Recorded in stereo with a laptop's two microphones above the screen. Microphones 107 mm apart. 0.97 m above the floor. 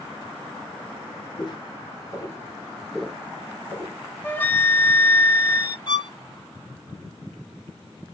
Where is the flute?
15° left (ahead or behind), 0.6 m.